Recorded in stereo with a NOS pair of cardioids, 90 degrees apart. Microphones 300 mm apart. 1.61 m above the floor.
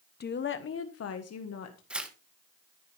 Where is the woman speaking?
35° left, 0.9 m; by 1.8 s 60° left, 1.8 m.